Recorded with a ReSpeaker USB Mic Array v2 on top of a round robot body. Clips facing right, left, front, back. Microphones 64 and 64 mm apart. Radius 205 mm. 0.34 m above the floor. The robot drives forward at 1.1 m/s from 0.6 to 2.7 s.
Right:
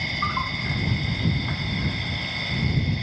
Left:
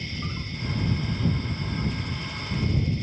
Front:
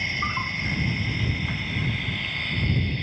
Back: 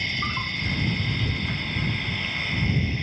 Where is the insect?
75° right; by 3.0 s 95° right.